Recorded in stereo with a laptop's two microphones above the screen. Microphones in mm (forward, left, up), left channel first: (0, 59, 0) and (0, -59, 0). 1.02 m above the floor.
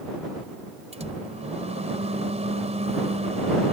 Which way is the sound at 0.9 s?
65° right (ahead or behind).